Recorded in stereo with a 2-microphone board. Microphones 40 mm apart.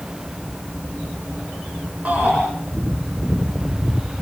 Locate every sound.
2.0 s a shout: 35° right (ahead or behind), 6 m